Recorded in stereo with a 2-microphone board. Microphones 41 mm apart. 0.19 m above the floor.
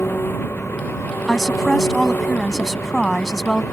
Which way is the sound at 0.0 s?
65° left (ahead or behind).